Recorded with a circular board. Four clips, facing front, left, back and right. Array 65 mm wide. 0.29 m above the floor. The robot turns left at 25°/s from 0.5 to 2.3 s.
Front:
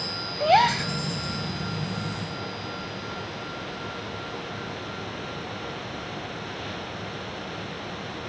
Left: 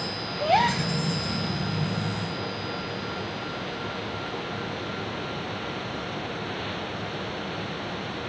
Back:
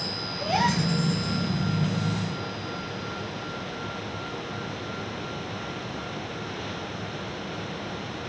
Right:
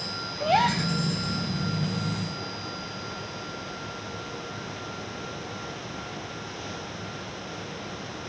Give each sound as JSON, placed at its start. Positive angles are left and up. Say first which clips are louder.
{"t": 0.4, "sound": "a gasp", "louder": "left 1 dB, front 5 dB", "azimuth_deg": 10, "distance_m": 1.6}